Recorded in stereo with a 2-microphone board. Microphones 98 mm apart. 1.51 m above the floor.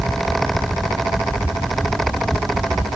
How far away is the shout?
No shout in this recording.